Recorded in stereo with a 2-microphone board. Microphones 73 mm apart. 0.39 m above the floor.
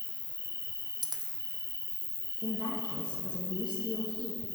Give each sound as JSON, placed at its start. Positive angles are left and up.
{"t": 0.0, "sound": "an insect", "side_deg": -45, "distance_m": 1.1}
{"t": 1.0, "sound": "a dropped coin", "side_deg": -70, "distance_m": 1.4}
{"t": 2.4, "sound": "a woman speaking", "side_deg": 75, "distance_m": 4.5}